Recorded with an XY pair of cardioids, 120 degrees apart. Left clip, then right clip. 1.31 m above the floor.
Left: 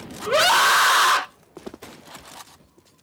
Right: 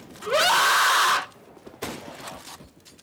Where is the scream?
15° left, 0.8 m.